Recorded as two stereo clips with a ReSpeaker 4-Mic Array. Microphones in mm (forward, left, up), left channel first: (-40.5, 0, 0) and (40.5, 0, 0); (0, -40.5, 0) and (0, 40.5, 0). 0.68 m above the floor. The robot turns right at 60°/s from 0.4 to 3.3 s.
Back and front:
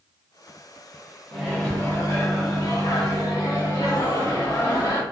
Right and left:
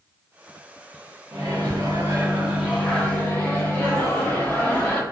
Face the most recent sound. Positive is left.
turn(degrees=-150)